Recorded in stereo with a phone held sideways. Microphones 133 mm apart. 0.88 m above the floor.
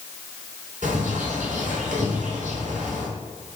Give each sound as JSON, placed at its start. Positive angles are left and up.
{"t": 0.8, "sound": "a bird", "side_deg": -85, "distance_m": 3.5}